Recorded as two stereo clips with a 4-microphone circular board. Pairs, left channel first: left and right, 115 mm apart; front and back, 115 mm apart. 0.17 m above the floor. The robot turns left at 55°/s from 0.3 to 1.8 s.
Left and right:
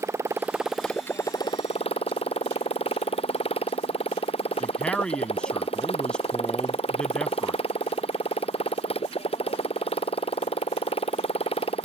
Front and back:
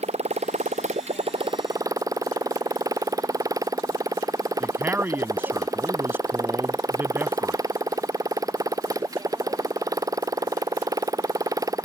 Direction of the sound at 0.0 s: 155° right.